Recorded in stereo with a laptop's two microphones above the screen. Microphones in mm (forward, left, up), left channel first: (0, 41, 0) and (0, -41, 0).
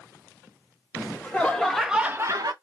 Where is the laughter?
25° left (ahead or behind), 1.6 m; by 2.5 s 60° right (ahead or behind), 0.7 m.